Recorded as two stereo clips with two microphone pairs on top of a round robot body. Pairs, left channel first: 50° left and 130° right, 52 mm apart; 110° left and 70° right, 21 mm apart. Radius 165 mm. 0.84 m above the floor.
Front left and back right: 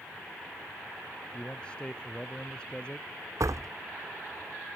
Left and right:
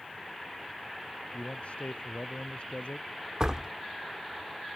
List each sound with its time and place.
1.3 s a man speaking: 120° left
3.4 s a door slam: 130° right